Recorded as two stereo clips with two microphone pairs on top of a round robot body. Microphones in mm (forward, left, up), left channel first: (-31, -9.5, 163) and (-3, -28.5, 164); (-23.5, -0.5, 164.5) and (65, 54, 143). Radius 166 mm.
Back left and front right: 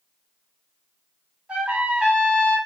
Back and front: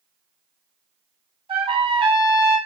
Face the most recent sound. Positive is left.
turn(degrees=20)